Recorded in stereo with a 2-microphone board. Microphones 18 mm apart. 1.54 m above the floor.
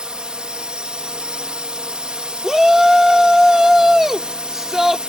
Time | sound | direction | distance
0.0 | a drone | 60° right (ahead or behind) | ?
2.4 | a shout | 20° right (ahead or behind) | ?